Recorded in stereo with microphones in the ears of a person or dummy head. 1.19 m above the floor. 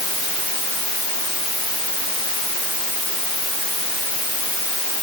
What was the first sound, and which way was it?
Only background noise.